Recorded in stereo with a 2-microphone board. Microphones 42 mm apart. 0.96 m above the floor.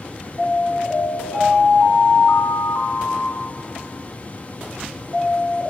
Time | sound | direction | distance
0.4 | an alarm | 75° left (ahead or behind) | 7 m